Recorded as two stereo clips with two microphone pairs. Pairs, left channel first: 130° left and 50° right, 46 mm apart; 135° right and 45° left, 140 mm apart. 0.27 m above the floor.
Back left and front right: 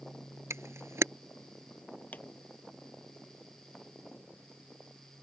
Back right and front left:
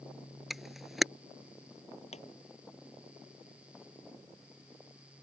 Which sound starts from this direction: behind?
A pop, at 2.1 s.